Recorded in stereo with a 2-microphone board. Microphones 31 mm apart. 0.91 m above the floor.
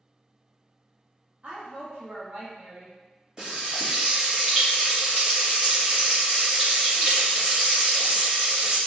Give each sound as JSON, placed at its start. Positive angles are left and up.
{"t": 1.4, "sound": "a woman speaking", "side_deg": -60, "distance_m": 1.2}
{"t": 3.4, "sound": "frying", "side_deg": -25, "distance_m": 1.4}